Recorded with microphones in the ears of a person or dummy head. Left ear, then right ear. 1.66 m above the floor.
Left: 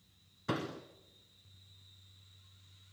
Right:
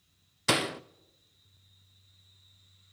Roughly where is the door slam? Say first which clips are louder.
Right 10 dB; right.